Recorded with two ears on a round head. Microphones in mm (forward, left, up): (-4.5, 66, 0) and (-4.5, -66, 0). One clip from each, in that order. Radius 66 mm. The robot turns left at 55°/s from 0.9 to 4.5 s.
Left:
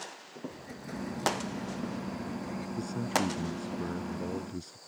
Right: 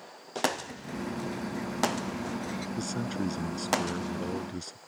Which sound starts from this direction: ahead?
An explosion, at 0.5 s.